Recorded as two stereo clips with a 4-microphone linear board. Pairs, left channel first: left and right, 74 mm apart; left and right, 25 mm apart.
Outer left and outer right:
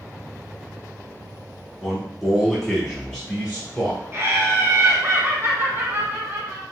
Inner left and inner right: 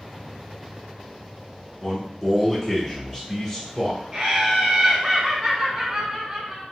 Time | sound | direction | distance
1.8 | a man speaking | 5° right (ahead or behind) | 1.1 m
4.1 | laughter | 35° right (ahead or behind) | 1.6 m